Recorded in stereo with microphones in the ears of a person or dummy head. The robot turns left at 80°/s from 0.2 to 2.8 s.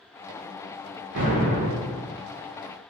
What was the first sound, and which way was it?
An explosion, 85° right.